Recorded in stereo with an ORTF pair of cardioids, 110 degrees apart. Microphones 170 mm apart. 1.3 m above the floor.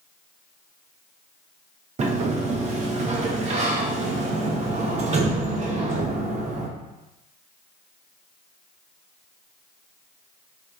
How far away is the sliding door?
About 0.9 m.